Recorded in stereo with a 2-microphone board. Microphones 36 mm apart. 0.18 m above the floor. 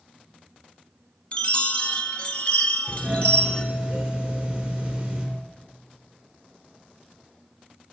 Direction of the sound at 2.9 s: 10° right (ahead or behind).